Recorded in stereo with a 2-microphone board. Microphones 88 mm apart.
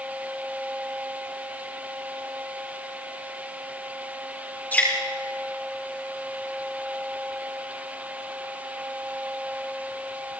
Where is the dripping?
20° left (ahead or behind), 5 m.